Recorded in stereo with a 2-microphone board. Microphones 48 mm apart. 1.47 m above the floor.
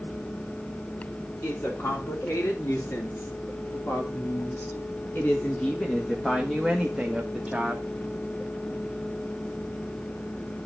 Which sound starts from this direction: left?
A woman speaking, at 1.4 s.